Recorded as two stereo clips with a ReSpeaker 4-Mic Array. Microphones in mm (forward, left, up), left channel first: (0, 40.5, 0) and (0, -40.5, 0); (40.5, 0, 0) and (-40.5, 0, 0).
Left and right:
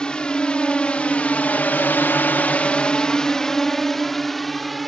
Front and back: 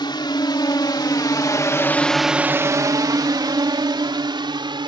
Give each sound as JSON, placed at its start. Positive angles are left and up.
{"t": 0.0, "sound": "a drone", "azimuth_deg": 10}